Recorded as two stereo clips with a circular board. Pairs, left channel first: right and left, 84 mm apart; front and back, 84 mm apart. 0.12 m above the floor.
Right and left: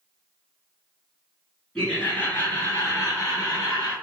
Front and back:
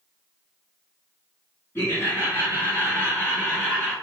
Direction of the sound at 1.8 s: 20° right.